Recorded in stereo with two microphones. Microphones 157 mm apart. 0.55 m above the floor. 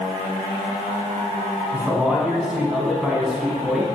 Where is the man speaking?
5° right (ahead or behind), 5 m.